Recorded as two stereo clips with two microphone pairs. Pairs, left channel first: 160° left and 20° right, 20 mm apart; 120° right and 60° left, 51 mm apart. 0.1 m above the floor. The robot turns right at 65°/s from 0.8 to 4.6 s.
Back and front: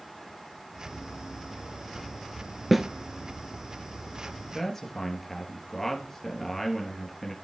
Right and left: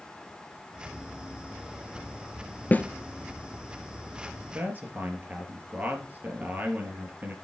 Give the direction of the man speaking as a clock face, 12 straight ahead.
9 o'clock.